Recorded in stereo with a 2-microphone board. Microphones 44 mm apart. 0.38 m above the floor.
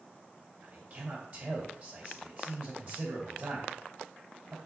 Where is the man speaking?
45° right (ahead or behind), 3 m.